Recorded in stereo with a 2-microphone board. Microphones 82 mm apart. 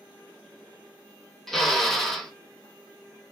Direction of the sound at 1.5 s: 5° left (ahead or behind).